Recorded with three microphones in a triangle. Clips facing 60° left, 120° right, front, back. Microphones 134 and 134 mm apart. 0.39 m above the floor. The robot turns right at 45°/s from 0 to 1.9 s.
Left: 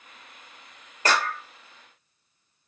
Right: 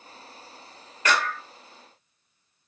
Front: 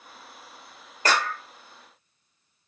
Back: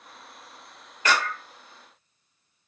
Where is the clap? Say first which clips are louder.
Even, front 1 dB; 25° left, 1.1 m; by 1.4 s 45° left, 1.1 m.